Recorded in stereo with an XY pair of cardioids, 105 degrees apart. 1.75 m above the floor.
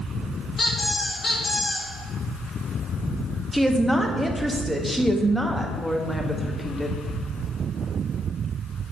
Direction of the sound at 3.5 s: Straight ahead.